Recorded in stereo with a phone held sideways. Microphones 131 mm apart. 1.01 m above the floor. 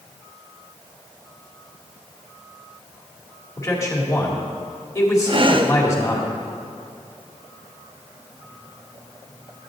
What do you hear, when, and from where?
3.6 s a man speaking: 25° left (ahead or behind), 2.0 m
5.3 s breathing: 45° right (ahead or behind), 0.5 m